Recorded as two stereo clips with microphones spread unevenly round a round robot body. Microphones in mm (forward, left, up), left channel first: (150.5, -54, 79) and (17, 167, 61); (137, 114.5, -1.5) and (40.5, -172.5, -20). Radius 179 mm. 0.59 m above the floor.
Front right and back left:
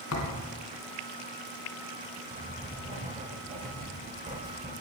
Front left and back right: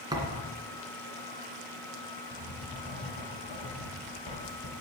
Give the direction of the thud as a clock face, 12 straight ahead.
1 o'clock.